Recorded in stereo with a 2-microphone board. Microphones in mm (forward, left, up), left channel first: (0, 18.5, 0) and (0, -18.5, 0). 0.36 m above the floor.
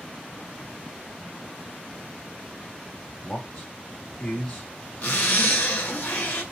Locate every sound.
3.2 s a man speaking: 35° left (ahead or behind), 3 m
5.0 s a zipper: 40° left (ahead or behind), 3.5 m